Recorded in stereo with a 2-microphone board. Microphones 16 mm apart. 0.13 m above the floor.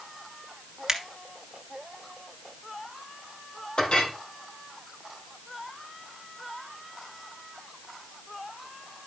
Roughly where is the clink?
Left.